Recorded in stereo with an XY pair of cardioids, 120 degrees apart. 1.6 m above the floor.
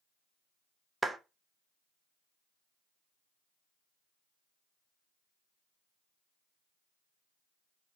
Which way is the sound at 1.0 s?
15° right.